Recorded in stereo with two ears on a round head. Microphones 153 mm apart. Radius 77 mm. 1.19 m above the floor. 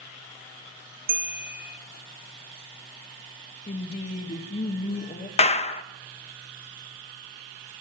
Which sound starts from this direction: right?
A bell, at 1.1 s.